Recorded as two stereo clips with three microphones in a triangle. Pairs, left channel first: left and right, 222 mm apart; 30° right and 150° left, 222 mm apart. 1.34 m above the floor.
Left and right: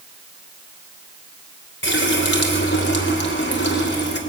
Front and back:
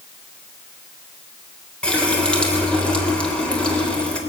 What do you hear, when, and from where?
1.8 s a running tap: 55° left, 3 m